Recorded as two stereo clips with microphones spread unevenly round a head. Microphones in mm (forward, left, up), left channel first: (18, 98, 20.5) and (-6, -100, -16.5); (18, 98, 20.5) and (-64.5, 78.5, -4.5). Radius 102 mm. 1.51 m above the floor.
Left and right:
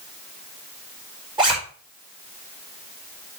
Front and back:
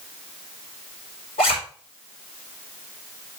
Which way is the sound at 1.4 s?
25° right.